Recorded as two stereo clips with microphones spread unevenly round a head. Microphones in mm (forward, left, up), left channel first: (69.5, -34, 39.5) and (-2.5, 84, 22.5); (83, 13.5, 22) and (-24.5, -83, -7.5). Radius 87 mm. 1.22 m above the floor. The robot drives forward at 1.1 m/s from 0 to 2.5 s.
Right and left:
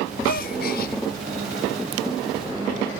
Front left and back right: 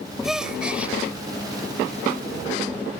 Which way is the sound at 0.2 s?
50° right.